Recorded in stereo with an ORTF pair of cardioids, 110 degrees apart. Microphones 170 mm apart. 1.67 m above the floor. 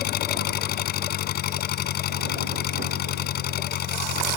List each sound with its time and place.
0.0 s an engine running: 70° left